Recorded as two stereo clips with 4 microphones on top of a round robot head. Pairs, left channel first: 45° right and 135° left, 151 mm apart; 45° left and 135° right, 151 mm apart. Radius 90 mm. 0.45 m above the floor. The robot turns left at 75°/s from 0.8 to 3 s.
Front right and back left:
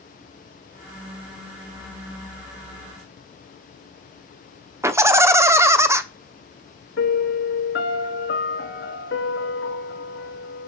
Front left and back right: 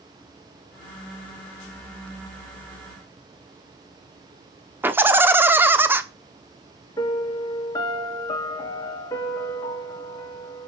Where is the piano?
25° right, 1.3 m.